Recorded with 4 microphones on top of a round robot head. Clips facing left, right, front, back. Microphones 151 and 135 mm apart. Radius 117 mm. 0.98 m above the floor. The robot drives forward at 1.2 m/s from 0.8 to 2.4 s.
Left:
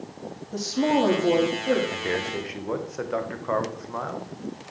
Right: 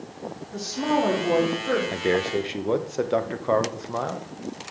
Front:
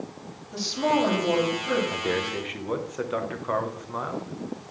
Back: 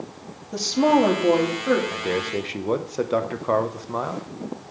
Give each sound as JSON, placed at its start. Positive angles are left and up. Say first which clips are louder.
{"t": 0.5, "sound": "a woman speaking", "louder": "left 2 dB, back 6 dB", "azimuth_deg": 140, "distance_m": 2.0}
{"t": 1.9, "sound": "a man speaking", "louder": "right 5 dB, back 2 dB", "azimuth_deg": -65, "distance_m": 0.7}